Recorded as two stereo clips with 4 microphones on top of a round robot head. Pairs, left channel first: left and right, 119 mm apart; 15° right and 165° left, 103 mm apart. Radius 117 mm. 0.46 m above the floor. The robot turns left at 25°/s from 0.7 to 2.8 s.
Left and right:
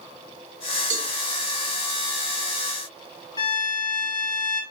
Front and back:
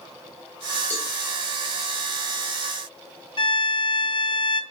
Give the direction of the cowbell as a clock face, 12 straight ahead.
3 o'clock.